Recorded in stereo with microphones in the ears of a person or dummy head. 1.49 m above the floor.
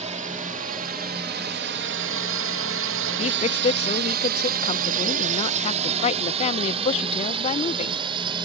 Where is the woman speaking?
40° left (ahead or behind).